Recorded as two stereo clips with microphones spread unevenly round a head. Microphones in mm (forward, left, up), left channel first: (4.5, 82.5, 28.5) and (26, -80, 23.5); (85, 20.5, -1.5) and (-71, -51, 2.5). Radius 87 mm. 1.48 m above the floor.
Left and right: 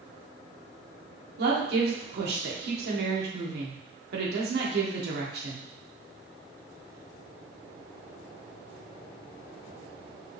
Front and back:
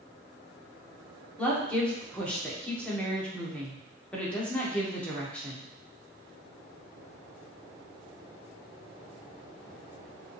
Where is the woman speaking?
60° right, 1.6 m.